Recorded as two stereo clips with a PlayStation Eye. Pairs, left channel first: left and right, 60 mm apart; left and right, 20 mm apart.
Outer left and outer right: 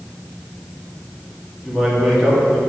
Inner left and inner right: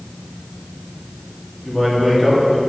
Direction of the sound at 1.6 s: Centre (ahead or behind).